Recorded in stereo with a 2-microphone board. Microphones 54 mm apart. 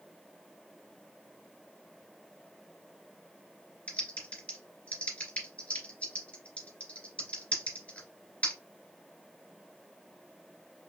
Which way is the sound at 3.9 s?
25° left (ahead or behind).